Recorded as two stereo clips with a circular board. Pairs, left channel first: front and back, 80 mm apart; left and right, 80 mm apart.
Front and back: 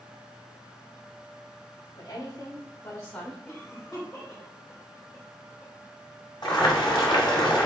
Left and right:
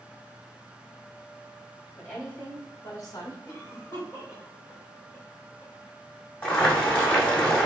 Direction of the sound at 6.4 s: 25° left.